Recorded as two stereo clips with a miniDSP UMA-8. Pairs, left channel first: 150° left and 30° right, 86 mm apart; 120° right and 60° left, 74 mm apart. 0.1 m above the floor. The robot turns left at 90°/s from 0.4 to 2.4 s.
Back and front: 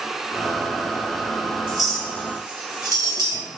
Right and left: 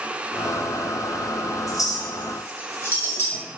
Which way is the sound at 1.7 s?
105° right.